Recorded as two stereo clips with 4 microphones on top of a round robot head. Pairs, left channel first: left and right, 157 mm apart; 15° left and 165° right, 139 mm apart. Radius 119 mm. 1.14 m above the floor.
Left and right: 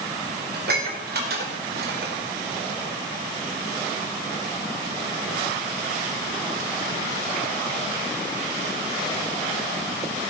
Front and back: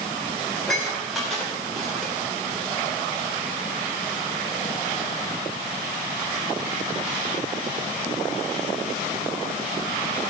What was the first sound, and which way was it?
Dishes clattering, 75° right.